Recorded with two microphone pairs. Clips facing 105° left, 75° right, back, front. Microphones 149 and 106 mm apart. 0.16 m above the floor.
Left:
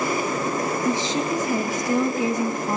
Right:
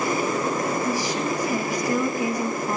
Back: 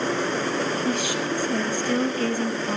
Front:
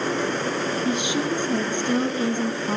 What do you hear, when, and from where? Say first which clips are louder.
0.8 s a woman speaking: left 2 dB, front 1 dB; 55° left, 1.2 m